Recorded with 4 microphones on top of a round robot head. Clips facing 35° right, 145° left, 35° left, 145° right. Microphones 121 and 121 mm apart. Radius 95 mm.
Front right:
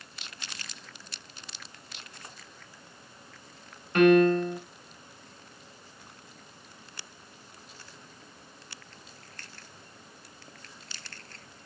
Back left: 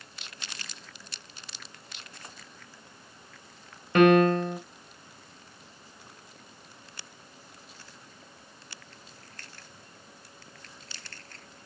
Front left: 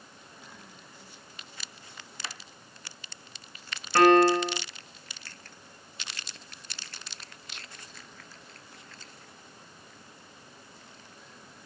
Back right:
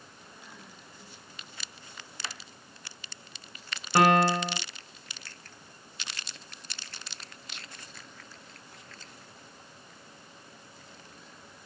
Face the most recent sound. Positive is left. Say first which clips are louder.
# even, front left 3 dB
turn(degrees=140)